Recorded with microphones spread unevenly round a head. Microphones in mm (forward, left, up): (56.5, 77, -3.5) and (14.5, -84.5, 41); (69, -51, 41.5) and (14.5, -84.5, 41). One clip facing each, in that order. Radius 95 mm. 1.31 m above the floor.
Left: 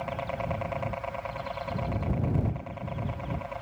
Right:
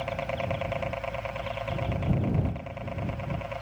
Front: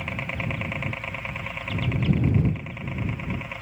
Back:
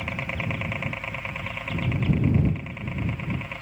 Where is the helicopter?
65° right; by 3.6 s 50° right.